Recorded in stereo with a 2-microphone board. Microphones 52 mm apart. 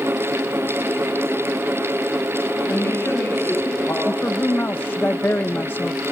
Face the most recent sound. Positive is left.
turn(degrees=40)  # may be behind; listen again after turning